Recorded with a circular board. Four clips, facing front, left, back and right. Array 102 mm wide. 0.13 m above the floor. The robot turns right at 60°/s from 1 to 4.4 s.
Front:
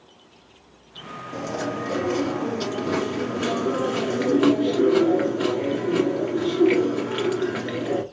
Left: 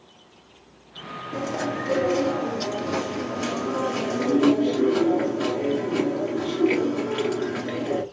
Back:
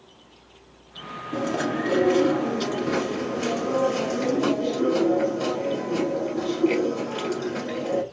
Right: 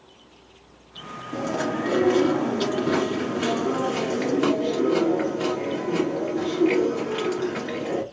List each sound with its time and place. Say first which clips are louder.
1.3 s chewing: right 2 dB, back 3 dB; straight behind, 1.7 m; by 8.0 s 5° left, 1.7 m